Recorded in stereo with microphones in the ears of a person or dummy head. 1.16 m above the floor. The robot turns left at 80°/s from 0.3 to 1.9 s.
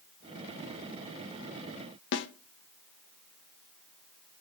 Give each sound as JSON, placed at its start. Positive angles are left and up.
{"t": 2.1, "sound": "a snare drum", "side_deg": 60, "distance_m": 0.6}